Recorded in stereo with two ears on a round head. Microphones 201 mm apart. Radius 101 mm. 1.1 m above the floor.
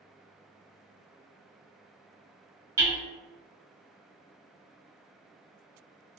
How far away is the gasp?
No gasp in this recording.